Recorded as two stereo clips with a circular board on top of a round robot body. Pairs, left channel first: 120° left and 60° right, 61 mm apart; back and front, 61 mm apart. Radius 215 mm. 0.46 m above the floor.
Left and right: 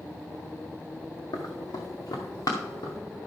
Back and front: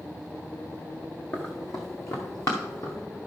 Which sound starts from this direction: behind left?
Running footsteps, at 1.3 s.